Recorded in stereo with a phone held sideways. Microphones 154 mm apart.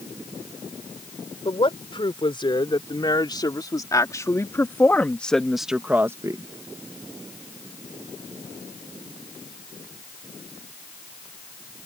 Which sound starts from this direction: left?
A woman speaking, at 1.4 s.